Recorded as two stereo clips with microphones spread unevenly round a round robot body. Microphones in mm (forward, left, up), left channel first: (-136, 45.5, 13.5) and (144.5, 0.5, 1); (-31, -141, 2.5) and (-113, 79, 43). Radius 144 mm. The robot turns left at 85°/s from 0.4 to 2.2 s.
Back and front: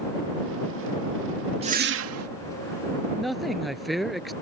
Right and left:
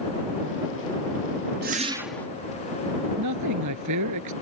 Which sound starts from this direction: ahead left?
A whoosh, at 1.6 s.